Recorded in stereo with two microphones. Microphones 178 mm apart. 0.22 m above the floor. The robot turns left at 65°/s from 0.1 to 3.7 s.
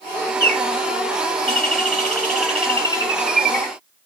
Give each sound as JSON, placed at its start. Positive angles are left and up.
{"t": 0.4, "sound": "a bird", "azimuth_deg": 25, "distance_m": 1.6}